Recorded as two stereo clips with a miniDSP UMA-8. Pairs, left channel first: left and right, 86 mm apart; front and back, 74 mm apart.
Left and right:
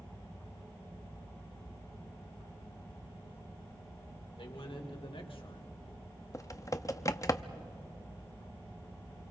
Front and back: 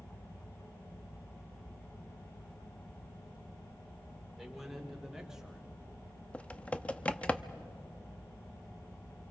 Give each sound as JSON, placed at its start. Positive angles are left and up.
{"t": 4.4, "sound": "a man speaking", "azimuth_deg": 90, "distance_m": 3.0}
{"t": 6.3, "sound": "typing on a keyboard", "azimuth_deg": 65, "distance_m": 0.6}